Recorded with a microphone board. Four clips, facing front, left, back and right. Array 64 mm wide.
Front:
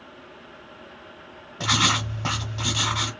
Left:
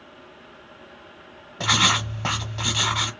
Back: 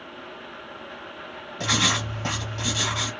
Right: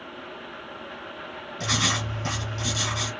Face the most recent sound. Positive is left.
turn(degrees=85)